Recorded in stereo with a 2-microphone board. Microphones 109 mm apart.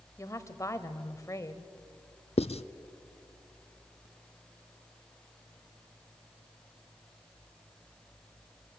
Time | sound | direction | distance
0.2 | a woman speaking | 30° left (ahead or behind) | 1.2 m
2.4 | writing | 70° left (ahead or behind) | 0.6 m